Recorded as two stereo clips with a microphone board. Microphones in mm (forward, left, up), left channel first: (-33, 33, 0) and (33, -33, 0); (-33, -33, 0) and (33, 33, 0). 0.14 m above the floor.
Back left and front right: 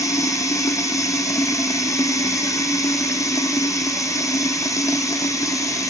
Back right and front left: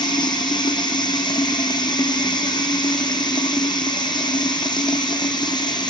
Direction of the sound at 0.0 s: 170° right.